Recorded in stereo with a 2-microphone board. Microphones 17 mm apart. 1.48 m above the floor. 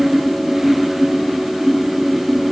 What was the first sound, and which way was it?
Only background noise.